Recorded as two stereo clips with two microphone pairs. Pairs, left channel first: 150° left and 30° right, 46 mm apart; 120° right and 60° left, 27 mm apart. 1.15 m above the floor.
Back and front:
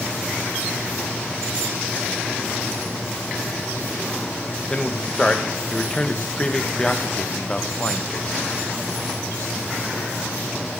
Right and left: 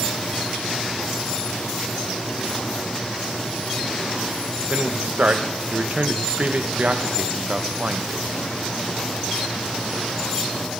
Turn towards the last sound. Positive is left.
turn(degrees=80)